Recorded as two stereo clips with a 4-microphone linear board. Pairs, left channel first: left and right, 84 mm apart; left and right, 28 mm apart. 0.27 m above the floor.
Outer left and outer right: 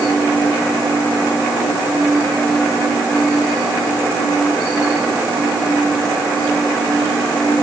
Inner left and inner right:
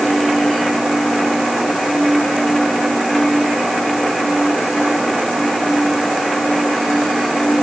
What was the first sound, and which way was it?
Only background noise.